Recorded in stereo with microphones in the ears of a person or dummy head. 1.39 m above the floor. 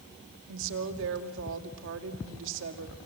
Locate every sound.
0.5 s a woman speaking: 75° right (ahead or behind), 2.5 m